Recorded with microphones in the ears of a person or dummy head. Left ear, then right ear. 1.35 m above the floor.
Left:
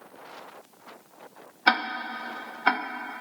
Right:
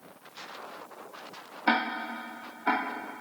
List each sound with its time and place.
1.7 s ticking: 50° left (ahead or behind), 0.6 m